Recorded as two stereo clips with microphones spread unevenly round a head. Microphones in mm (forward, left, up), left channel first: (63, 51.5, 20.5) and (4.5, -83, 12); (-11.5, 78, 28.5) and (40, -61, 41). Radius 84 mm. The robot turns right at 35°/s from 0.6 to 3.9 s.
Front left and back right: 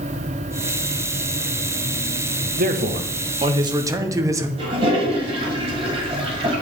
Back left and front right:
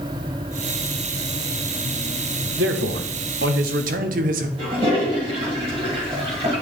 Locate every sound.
2.6 s a man speaking: 90° right, 0.7 m; by 4.5 s 45° right, 0.7 m
4.6 s a toilet flushing: 85° right, 1.6 m